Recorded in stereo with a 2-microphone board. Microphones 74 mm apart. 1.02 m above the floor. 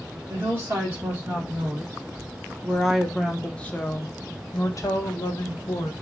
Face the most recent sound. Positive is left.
turn(degrees=60)  # may be behind; listen again after turning